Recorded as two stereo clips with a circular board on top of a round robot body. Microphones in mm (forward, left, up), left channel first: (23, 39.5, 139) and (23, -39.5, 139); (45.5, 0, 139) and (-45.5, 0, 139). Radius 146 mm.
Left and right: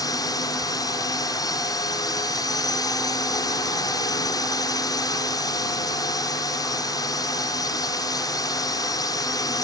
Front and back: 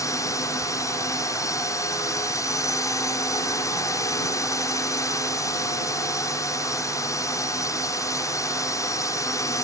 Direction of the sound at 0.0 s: 55° left.